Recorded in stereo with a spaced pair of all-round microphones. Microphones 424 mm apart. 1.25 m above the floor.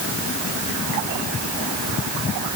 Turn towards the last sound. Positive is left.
No sound to turn to.